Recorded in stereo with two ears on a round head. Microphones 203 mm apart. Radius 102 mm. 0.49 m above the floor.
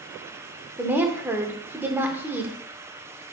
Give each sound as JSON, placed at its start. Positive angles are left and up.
{"t": 0.8, "sound": "a woman speaking", "side_deg": -10, "distance_m": 1.0}